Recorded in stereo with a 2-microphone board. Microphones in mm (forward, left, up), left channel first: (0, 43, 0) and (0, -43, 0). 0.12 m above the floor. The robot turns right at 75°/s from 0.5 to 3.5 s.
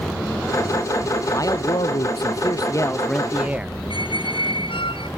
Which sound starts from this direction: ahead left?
A man speaking, at 1.3 s.